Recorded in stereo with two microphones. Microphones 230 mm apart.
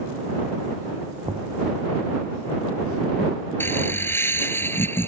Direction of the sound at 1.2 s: 20° right (ahead or behind).